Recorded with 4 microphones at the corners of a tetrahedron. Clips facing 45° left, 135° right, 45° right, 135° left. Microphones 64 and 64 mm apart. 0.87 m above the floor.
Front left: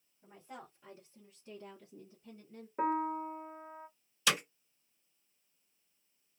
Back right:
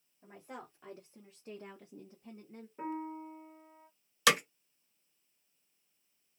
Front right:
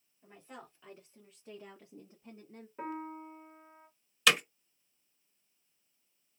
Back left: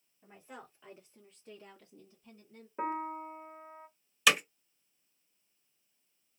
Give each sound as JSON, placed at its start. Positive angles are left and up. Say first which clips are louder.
{"t": 0.2, "sound": "a woman speaking", "louder": "back right 2 dB, even", "azimuth_deg": -155, "distance_m": 1.8}
{"t": 2.8, "sound": "a piano", "louder": "front left 7 dB, back left 5 dB", "azimuth_deg": 80, "distance_m": 0.5}
{"t": 4.3, "sound": "hammering", "louder": "back right 5 dB, even", "azimuth_deg": -135, "distance_m": 1.3}